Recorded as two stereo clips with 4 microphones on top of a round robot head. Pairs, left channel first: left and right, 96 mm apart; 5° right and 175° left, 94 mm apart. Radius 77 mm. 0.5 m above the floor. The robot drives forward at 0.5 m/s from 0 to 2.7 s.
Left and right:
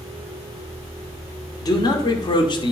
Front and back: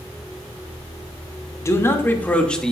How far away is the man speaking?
About 1.2 m.